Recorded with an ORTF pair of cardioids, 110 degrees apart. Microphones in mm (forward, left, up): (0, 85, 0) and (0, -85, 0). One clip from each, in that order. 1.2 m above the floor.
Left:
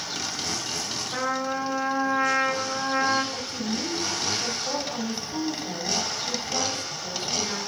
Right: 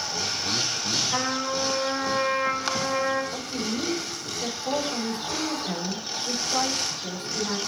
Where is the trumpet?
40° right, 4 m.